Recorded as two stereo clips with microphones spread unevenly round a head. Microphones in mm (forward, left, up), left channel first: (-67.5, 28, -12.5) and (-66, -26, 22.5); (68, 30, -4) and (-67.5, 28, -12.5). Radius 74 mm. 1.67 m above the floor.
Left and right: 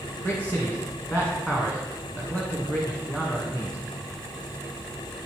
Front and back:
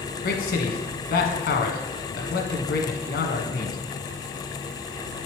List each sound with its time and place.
0.2 s a man speaking: 5° left, 1.5 m